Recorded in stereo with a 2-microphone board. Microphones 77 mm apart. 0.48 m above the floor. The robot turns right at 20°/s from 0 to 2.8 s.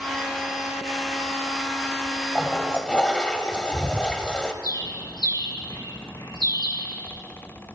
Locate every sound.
2.4 s a toilet flushing: centre (ahead or behind), 0.9 m; by 4.5 s 10° left (ahead or behind), 0.9 m
4.6 s a bird: 55° left (ahead or behind), 6 m